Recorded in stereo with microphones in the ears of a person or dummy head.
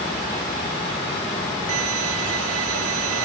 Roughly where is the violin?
Right.